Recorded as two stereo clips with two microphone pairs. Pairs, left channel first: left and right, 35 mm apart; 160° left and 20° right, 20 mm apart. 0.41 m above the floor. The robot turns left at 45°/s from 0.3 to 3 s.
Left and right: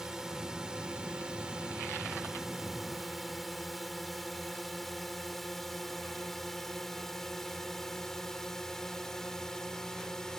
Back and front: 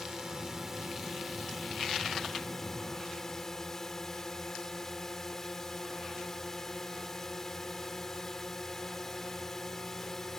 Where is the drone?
40° right; by 10.4 s 130° left.